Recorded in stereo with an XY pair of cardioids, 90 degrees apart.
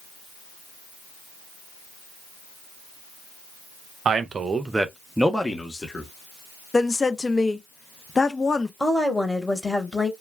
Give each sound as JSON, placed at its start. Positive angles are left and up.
{"t": 4.0, "sound": "a man speaking", "azimuth_deg": -60, "distance_m": 0.7}
{"t": 6.7, "sound": "a woman speaking", "azimuth_deg": 30, "distance_m": 0.6}
{"t": 8.8, "sound": "a woman speaking", "azimuth_deg": 10, "distance_m": 1.0}